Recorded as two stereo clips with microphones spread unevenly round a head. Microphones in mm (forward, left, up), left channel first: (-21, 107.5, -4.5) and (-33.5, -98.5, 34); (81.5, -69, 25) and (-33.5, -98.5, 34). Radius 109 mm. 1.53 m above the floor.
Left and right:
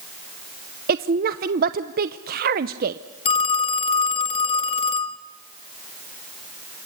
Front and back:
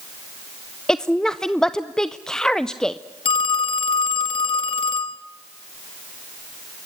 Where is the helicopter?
I don't hear a helicopter.